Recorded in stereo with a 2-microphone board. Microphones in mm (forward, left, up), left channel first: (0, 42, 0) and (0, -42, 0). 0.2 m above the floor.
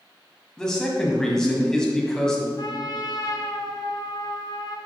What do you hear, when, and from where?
0.6 s a man speaking: 5° left (ahead or behind), 1.6 m
2.6 s a trumpet: 60° left (ahead or behind), 1.0 m